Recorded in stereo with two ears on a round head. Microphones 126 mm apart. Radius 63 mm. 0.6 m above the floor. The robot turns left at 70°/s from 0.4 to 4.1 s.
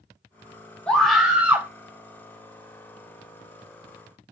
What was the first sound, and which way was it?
A scream, 5° left (ahead or behind).